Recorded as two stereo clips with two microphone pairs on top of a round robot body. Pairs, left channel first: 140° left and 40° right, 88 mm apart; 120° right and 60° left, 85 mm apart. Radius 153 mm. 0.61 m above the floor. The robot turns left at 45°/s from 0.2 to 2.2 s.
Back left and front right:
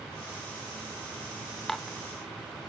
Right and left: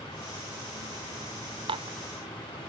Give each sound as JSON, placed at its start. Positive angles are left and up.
{"t": 1.7, "sound": "dishes clattering", "azimuth_deg": 50}